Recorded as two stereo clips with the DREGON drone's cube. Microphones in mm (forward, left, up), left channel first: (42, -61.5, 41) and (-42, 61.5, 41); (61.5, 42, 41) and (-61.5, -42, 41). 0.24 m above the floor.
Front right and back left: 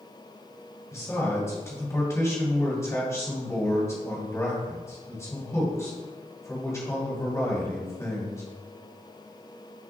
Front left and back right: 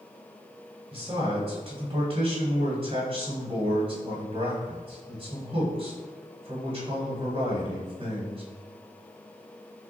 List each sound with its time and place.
0.9 s a man speaking: 120° right, 1.7 m